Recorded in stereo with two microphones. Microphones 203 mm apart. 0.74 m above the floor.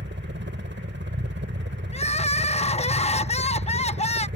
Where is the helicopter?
65° right (ahead or behind).